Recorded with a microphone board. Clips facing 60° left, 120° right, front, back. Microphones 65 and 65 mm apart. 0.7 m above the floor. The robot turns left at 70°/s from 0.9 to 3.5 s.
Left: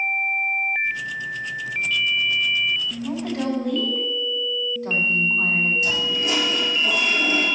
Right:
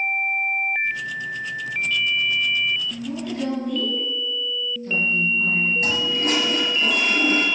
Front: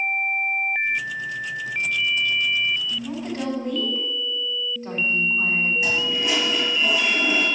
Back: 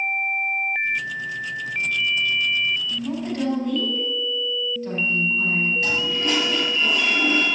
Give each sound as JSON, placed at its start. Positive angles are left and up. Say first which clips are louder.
{"t": 3.0, "sound": "a woman speaking", "louder": "left 3 dB, back 3 dB", "azimuth_deg": 105, "distance_m": 4.5}
{"t": 5.8, "sound": "a toilet flushing", "louder": "right 1 dB, even", "azimuth_deg": -80, "distance_m": 6.0}